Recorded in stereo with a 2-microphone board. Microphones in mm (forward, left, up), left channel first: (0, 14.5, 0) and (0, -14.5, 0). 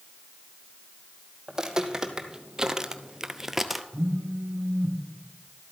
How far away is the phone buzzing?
About 1.3 m.